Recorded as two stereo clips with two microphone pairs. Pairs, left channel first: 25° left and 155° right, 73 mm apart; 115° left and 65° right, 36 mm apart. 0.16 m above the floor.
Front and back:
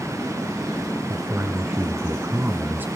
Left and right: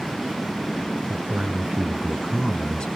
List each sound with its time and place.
1.1 s a man speaking: 110° right, 2.5 m; by 2.9 s 155° left, 2.0 m